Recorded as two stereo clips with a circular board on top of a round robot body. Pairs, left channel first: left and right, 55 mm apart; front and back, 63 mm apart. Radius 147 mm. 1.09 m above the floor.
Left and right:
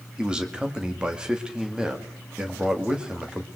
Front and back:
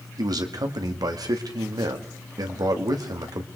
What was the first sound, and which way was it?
A man speaking, 165° right.